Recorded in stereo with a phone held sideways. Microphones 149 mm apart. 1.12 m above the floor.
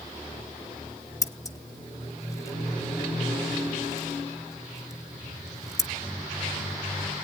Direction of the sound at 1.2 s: 20° left (ahead or behind).